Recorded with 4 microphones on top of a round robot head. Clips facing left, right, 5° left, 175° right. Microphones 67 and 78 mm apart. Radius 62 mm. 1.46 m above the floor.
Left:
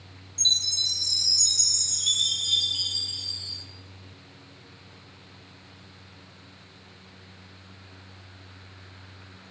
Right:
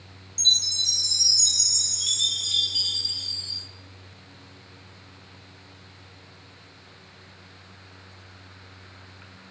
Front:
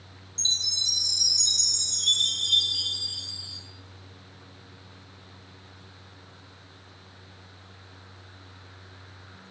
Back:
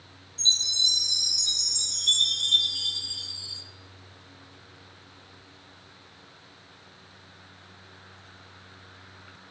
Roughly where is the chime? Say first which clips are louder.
Right 2 dB, back 4 dB; ahead.